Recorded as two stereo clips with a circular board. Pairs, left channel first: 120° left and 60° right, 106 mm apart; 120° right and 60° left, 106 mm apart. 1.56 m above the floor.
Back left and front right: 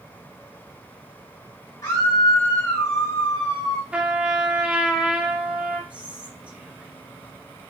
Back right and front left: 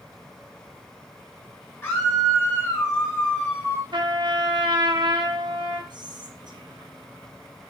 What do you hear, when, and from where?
1.8 s a scream: 165° left, 1.2 m
3.9 s a trumpet: 15° left, 0.7 m
5.9 s whispering: 15° left, 0.8 m